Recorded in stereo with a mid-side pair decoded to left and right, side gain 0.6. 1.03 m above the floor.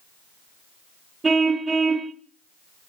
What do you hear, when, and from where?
1.2 s a car horn: 20° right, 2 m